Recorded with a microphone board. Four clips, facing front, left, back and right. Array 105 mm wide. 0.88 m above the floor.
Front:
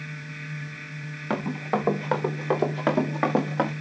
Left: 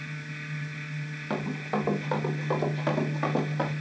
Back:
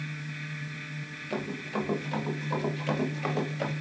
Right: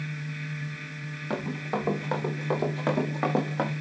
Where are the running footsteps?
Straight ahead, 4.5 m; by 3.7 s 20° right, 4.5 m.